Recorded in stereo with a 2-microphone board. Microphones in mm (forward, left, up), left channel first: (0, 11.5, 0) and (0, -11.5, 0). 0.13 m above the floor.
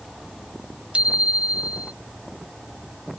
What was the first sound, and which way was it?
A bicycle bell, 50° right (ahead or behind).